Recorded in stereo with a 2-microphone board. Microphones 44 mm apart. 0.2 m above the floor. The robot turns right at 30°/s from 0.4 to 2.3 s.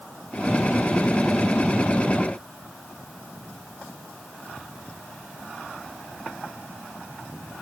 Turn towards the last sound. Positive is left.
No sound to turn to.